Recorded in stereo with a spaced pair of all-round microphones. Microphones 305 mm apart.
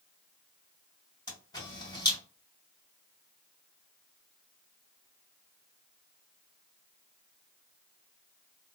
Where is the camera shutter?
10° left (ahead or behind), 1.8 m.